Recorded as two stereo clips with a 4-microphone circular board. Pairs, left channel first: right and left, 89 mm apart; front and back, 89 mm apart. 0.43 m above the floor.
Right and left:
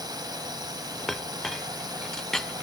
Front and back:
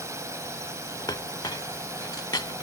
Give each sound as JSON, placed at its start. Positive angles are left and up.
{"t": 0.0, "sound": "a drone", "azimuth_deg": 125}
{"t": 1.1, "sound": "a clink", "azimuth_deg": -5}